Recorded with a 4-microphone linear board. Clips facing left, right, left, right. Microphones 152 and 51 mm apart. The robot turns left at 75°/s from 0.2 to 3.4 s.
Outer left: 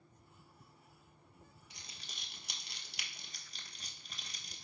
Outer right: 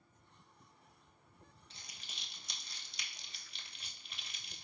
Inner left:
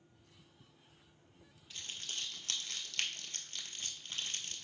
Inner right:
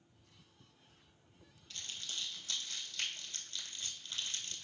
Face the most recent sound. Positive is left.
turn(degrees=40)  # may be behind; listen again after turning